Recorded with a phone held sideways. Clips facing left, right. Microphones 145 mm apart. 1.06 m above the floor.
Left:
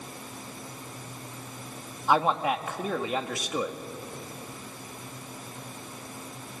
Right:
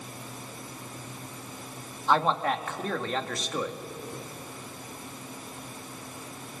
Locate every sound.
2.1 s a man speaking: 10° left (ahead or behind), 1.8 m